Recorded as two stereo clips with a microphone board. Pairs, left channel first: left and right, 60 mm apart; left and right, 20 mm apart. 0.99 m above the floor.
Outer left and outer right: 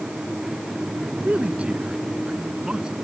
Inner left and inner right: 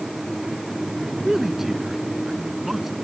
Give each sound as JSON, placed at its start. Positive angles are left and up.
{"t": 1.2, "sound": "a man speaking", "side_deg": -20}